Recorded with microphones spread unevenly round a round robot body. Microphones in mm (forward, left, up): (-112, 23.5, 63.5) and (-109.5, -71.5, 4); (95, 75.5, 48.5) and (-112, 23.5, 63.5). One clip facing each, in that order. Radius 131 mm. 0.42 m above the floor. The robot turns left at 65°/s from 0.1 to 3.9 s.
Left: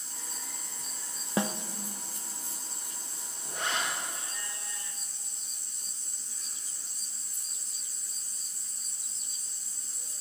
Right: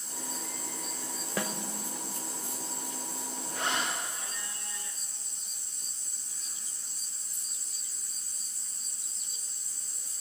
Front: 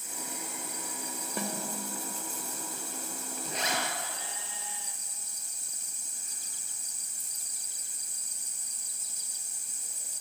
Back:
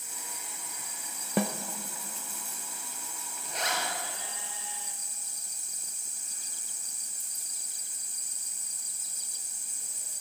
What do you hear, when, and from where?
1.4 s a snare drum: 170° left, 1.4 m; by 1.6 s 160° left, 1.4 m
3.5 s a zipper: 20° left, 5.5 m; by 3.8 s 5° right, 5.5 m